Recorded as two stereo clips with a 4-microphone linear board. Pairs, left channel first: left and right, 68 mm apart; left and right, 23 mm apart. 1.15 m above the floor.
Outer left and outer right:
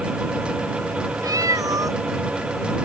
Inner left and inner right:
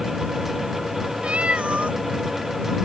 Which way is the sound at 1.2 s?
55° right (ahead or behind).